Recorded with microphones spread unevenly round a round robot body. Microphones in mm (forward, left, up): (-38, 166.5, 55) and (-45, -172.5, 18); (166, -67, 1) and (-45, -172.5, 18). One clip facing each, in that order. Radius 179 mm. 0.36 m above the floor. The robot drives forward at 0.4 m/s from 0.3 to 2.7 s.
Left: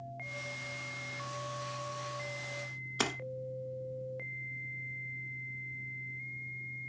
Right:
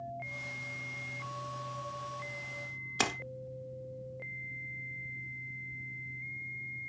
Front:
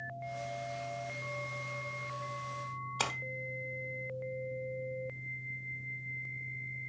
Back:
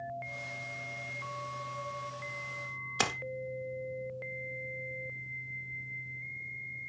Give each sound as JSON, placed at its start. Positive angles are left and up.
{"t": 3.0, "sound": "a splash", "azimuth_deg": -170, "distance_m": 1.5}